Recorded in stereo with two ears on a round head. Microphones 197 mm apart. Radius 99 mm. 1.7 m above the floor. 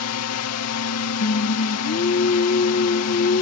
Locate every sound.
0.0 s a drone: 80° left
1.2 s singing: 45° left (ahead or behind)